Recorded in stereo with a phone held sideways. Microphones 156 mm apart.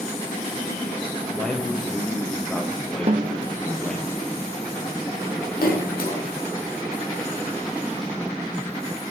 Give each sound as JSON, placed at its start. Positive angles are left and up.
{"t": 1.3, "sound": "a man speaking", "side_deg": 5, "distance_m": 1.0}
{"t": 3.1, "sound": "a snare drum", "side_deg": -40, "distance_m": 0.7}
{"t": 5.6, "sound": "a splash", "side_deg": 70, "distance_m": 1.5}